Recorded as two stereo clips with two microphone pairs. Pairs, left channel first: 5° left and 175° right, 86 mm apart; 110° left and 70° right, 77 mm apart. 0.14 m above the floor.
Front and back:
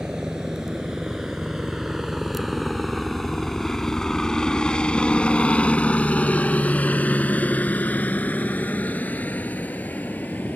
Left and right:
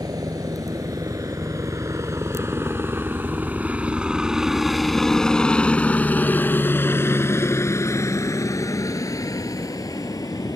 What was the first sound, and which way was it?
A helicopter, 95° right.